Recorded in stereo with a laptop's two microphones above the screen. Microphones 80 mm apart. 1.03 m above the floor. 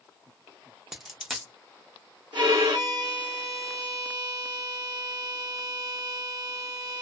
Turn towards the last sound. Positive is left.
turn(degrees=-55)  # may be behind; listen again after turning